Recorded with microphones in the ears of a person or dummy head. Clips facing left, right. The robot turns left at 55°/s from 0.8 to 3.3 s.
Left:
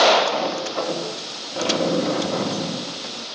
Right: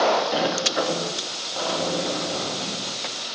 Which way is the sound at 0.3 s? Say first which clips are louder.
Right 1 dB; 170° right.